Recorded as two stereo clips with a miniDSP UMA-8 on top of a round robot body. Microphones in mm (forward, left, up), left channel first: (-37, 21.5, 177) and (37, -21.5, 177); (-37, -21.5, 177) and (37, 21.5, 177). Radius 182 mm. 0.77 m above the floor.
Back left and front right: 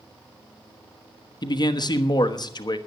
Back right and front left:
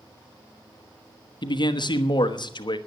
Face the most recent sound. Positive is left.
turn(degrees=180)